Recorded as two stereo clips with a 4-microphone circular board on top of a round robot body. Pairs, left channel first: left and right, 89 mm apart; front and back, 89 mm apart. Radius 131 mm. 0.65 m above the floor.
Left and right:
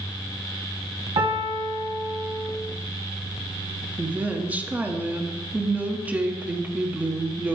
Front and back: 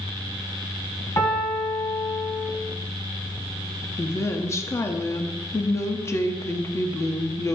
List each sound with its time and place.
1.2 s a piano: 55° right, 1.6 m
4.0 s a woman speaking: 30° right, 1.1 m